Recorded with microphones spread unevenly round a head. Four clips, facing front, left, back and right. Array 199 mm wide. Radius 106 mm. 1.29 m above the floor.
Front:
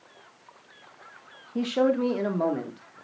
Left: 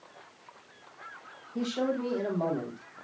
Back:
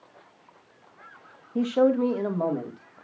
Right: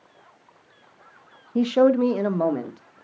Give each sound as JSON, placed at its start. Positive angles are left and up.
{"t": 1.6, "sound": "a man speaking", "azimuth_deg": -65, "distance_m": 0.9}